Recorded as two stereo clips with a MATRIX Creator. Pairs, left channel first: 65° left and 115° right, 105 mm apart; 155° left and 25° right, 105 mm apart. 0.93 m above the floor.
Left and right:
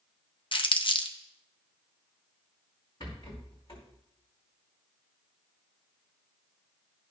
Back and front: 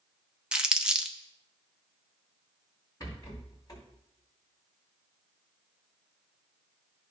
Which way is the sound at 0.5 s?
55° left.